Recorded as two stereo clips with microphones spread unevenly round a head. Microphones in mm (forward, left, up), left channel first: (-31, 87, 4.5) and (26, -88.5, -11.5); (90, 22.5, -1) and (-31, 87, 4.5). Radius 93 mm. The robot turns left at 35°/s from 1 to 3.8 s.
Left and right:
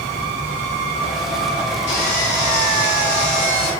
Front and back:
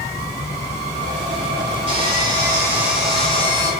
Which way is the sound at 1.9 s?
110° left.